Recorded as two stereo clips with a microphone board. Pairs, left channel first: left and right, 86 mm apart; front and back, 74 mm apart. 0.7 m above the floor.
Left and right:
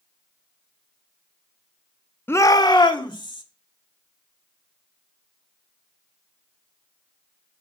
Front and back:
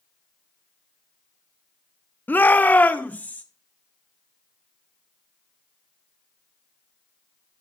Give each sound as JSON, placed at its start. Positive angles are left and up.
{"t": 2.3, "sound": "a shout", "azimuth_deg": 45, "distance_m": 0.6}